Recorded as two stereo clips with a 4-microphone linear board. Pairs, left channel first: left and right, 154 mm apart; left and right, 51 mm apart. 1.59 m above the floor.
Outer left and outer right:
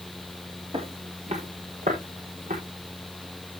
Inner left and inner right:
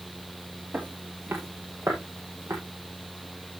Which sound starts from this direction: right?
Footsteps, at 0.7 s.